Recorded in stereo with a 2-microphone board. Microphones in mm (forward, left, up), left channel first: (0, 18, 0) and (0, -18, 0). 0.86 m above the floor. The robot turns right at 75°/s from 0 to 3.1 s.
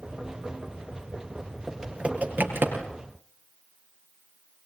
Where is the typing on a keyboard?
10° right (ahead or behind), 4.5 m; by 2.9 s 80° right, 4.5 m.